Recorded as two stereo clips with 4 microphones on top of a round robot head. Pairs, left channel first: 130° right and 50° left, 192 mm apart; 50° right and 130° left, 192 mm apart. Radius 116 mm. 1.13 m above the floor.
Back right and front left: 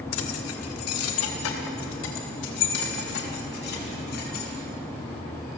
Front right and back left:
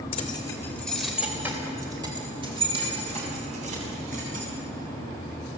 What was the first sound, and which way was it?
Keys jangling, 115° right.